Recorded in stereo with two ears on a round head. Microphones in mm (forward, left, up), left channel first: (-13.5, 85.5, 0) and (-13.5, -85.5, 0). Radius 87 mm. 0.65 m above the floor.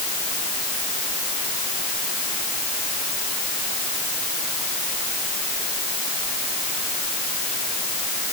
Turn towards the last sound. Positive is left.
No sound to turn to.